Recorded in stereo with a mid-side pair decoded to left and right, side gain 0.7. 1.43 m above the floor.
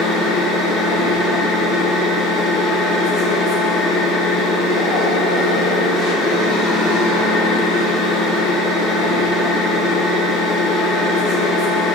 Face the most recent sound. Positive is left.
turn(degrees=50)